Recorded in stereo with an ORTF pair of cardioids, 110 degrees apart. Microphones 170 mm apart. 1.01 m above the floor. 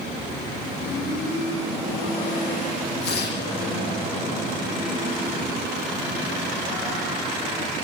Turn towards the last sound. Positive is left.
turn(degrees=70)